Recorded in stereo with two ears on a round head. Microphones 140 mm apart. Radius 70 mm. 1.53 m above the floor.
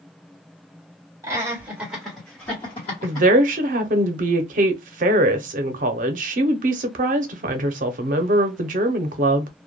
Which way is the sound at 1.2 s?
25° right (ahead or behind).